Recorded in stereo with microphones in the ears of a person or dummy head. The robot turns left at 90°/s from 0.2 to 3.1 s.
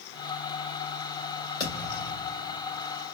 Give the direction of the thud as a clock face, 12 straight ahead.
11 o'clock.